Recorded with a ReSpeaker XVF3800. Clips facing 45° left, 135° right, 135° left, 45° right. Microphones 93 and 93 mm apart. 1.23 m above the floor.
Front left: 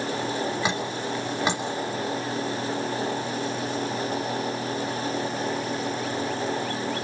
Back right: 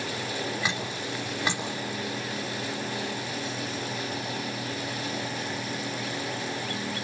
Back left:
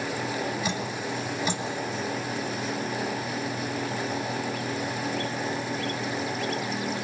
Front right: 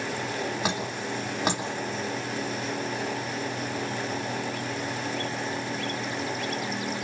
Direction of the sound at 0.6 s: 25° right.